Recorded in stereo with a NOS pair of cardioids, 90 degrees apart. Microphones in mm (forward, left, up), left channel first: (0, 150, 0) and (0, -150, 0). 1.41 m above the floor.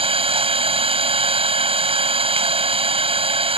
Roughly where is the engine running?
Ahead.